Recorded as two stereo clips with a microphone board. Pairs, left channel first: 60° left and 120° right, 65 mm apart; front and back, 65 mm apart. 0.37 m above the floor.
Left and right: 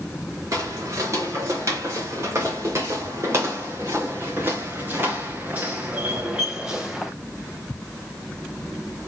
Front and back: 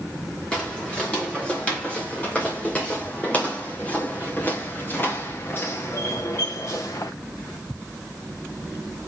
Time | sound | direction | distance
0.5 | footsteps | 75° right | 5 m